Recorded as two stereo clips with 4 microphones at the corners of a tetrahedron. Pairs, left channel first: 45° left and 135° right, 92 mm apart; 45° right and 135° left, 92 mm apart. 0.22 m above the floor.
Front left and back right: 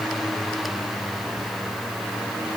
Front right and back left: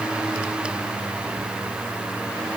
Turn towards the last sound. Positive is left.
No sound to turn to.